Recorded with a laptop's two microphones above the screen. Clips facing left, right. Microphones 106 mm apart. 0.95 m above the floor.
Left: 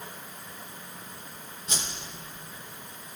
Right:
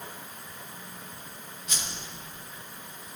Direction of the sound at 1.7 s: 30° left (ahead or behind).